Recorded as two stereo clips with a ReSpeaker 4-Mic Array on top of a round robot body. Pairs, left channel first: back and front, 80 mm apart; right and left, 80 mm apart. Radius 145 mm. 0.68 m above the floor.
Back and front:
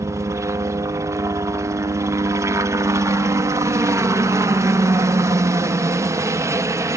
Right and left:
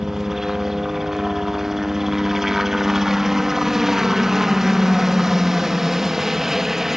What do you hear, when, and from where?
0.0 s a helicopter: 10° left